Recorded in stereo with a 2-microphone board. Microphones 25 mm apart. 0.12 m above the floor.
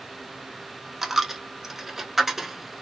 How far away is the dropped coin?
About 0.5 m.